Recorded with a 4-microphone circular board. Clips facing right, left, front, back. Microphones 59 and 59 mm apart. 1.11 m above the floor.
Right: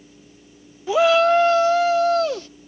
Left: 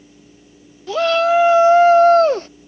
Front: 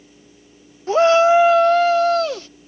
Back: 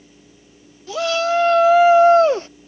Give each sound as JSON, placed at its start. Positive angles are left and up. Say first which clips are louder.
{"t": 0.9, "sound": "a shout", "louder": "even, front 7 dB", "azimuth_deg": -20}